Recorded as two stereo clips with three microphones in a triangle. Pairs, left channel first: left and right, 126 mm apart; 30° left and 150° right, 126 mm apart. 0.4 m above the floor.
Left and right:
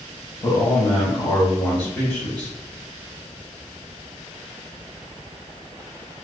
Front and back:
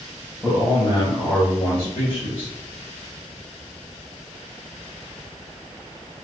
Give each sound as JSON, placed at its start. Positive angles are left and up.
{"t": 0.4, "sound": "a man speaking", "azimuth_deg": 75, "distance_m": 1.8}